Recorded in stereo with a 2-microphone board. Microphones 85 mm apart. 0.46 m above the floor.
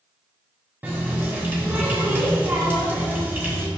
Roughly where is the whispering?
I don't hear whispering.